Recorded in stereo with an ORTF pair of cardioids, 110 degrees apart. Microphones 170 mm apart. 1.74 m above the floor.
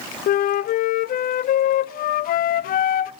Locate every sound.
0.3 s a flute: 60° left, 0.7 m